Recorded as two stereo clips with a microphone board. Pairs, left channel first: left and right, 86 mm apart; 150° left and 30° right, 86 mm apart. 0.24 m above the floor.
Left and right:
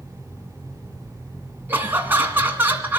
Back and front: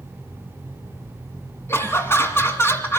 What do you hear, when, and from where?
1.7 s laughter: 155° right, 2 m